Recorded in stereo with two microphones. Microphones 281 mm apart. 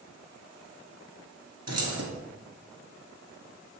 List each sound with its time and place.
1.7 s keys jangling: 60° right (ahead or behind), 2 m